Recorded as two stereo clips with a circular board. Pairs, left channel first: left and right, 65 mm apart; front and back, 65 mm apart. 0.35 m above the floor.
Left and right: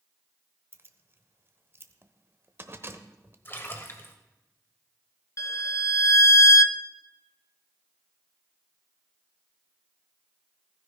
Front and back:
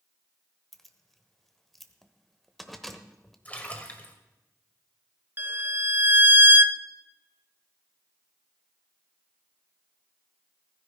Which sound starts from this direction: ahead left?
A splash, at 3.5 s.